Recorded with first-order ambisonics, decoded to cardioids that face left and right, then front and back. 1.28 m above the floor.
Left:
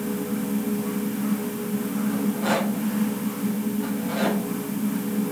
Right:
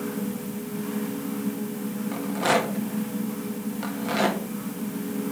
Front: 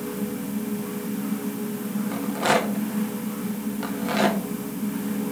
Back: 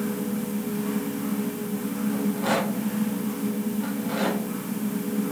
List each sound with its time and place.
2.1 s a rattle: 35° right, 1.4 m